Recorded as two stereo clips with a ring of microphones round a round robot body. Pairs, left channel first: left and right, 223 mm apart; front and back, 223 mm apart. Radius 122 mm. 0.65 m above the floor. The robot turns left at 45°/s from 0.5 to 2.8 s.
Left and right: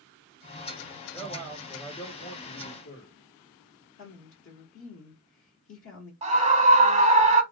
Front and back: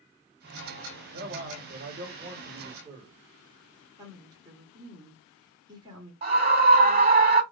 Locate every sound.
1.1 s a man speaking: straight behind, 2 m; by 3.1 s 105° left, 2 m
4.0 s a woman speaking: 105° left, 1.7 m
6.2 s a scream: 140° right, 0.9 m